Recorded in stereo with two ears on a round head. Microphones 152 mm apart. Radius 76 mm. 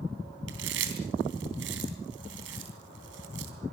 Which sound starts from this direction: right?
Chewing, at 0.5 s.